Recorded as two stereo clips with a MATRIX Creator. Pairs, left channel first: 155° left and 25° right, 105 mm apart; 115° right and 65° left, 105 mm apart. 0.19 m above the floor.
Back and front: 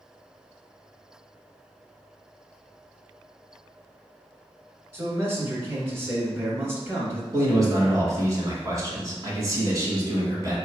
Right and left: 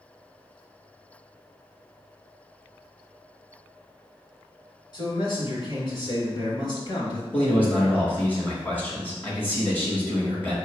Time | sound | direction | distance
4.9 | a man speaking | 85° right | 2 m
7.3 | a man speaking | 50° right | 1.8 m